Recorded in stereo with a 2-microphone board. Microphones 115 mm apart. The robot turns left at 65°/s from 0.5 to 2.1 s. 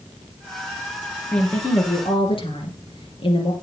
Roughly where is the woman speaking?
Behind.